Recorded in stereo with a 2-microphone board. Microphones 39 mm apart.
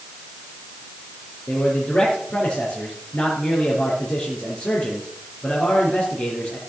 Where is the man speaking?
30° left (ahead or behind), 3.5 m.